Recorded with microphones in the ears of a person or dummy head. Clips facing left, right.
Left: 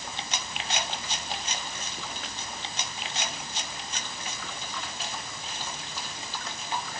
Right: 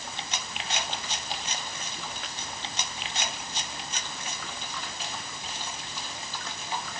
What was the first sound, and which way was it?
Only background noise.